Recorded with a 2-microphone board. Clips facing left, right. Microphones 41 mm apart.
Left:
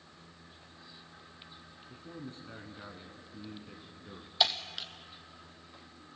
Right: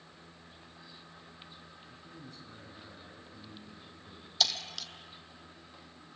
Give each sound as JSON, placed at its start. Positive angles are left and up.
{"t": 1.9, "sound": "a man speaking", "side_deg": 35, "distance_m": 2.0}
{"t": 4.4, "sound": "breaking glass", "side_deg": 25, "distance_m": 0.9}